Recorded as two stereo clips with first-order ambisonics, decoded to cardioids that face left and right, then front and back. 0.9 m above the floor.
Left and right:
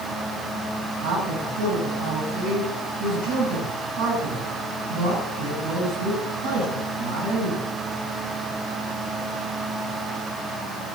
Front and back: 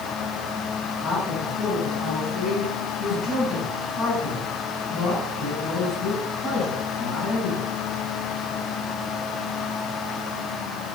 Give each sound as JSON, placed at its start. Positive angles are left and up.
{"t": 1.0, "sound": "a man speaking", "azimuth_deg": -55, "distance_m": 9.0}